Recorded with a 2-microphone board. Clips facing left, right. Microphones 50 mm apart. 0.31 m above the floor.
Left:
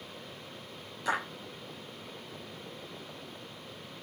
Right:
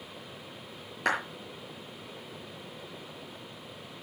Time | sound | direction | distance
1.1 | a clap | 65° right (ahead or behind) | 5.5 m